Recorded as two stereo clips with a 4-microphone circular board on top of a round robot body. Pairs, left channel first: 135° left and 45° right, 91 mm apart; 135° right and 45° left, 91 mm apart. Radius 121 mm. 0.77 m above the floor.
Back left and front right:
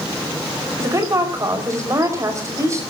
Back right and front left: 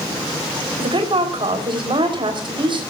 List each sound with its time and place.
0.8 s a woman speaking: 10° left, 5 m